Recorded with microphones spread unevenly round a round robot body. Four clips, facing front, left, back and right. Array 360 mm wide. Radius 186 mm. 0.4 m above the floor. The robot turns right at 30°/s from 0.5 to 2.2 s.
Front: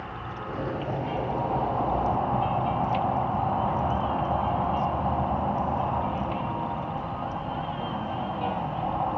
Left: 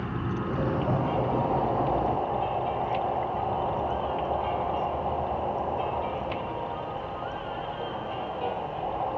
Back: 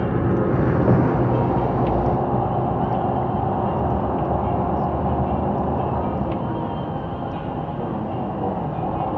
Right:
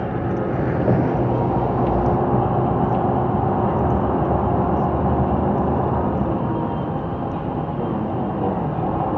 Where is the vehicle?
155° right; by 9.2 s 105° right.